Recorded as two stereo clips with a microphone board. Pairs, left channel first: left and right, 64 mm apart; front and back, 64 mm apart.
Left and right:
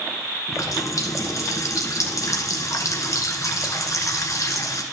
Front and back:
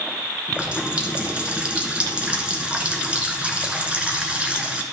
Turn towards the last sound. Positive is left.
turn(degrees=110)